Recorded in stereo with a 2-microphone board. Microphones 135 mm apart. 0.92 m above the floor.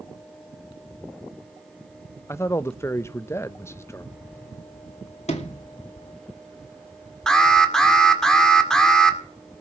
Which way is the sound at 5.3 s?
55° left (ahead or behind).